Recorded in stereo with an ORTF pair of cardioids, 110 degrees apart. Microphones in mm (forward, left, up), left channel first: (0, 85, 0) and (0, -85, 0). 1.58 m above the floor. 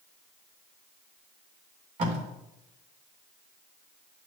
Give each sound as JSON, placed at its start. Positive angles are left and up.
{"t": 2.0, "sound": "tape being pulled", "azimuth_deg": -45, "distance_m": 3.0}